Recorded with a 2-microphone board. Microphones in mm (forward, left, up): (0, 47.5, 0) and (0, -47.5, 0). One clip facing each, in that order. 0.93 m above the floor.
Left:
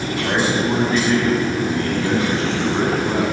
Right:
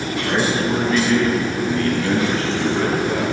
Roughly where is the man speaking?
Left.